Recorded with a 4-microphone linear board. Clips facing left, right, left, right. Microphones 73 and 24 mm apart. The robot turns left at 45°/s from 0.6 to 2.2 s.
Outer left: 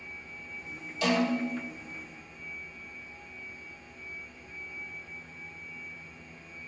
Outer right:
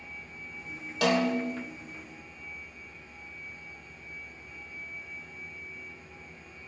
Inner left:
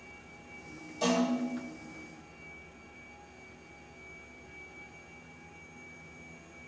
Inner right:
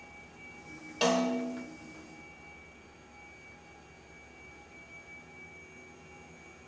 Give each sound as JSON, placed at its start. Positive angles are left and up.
{"t": 1.0, "sound": "a snare drum", "side_deg": -80, "distance_m": 0.6}